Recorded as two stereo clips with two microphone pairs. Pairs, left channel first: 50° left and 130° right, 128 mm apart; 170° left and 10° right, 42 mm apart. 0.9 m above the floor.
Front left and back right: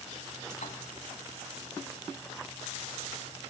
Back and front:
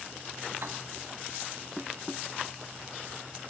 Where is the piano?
25° left, 2.5 m.